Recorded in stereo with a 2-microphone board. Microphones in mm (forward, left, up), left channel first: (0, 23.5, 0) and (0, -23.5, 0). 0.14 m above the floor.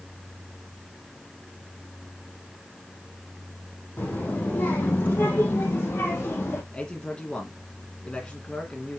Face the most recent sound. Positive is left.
turn(degrees=25)  # may be behind; listen again after turning